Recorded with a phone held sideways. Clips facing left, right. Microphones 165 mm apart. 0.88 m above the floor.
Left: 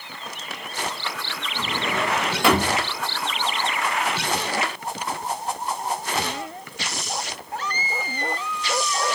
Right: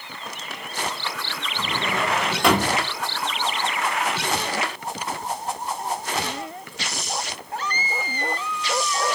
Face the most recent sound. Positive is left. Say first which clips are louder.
# even
turn(degrees=0)  # may be behind; listen again after turning